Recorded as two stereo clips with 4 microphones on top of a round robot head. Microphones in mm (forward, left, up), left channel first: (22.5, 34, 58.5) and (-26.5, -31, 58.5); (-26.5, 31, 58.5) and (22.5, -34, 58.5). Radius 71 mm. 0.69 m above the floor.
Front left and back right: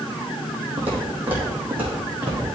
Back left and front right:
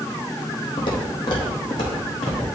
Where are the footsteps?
165° left, 2.0 m; by 2.5 s 160° left, 3 m.